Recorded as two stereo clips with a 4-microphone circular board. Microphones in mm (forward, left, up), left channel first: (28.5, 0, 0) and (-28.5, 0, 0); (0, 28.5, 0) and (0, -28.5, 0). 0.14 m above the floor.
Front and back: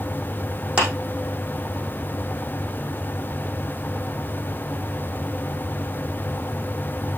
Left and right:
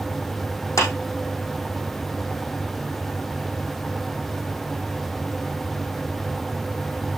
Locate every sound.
0.8 s a clap: 115° left, 4 m